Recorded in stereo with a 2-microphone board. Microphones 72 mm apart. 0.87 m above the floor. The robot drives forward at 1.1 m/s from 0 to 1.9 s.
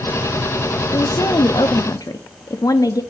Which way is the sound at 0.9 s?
50° left (ahead or behind).